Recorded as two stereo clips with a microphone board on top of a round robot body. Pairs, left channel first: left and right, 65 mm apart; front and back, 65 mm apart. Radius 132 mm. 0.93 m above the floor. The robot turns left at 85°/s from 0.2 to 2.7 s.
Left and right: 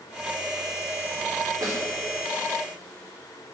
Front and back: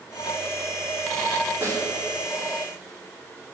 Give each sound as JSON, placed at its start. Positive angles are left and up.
{"t": 1.6, "sound": "a snare drum", "azimuth_deg": -125, "distance_m": 4.0}